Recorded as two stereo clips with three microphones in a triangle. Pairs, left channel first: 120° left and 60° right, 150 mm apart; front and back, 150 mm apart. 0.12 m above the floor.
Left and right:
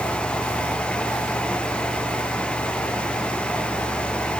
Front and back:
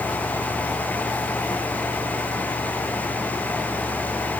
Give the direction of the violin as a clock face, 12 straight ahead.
I don't hear a violin.